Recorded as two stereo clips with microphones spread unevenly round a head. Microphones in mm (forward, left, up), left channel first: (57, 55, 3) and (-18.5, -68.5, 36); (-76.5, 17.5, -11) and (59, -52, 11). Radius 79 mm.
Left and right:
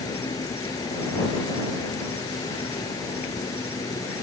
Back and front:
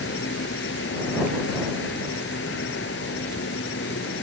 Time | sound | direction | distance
0.0 | an insect | 130° left | ?